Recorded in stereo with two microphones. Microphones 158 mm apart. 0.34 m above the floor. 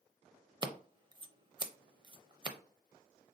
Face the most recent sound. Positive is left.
turn(degrees=-30)  # may be behind; listen again after turning